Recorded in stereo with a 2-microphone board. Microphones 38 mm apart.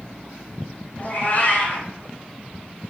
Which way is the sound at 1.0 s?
45° left (ahead or behind).